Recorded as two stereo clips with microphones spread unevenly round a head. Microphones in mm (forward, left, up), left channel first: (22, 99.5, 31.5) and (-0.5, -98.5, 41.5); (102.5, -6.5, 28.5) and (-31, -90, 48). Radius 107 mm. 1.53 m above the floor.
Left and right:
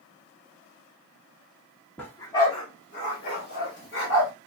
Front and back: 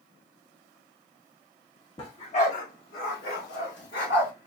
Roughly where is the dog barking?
Ahead.